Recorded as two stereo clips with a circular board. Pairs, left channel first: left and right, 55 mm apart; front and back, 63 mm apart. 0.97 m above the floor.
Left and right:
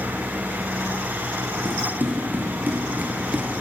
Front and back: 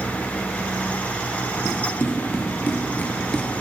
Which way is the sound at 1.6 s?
40° right.